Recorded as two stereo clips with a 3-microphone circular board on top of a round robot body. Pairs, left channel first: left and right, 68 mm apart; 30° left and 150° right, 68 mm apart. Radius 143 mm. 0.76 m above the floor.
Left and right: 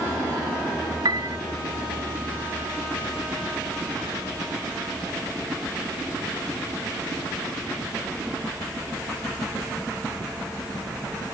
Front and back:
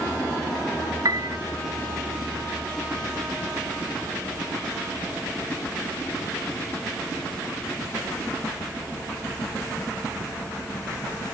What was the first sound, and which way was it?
A piano, 115° right.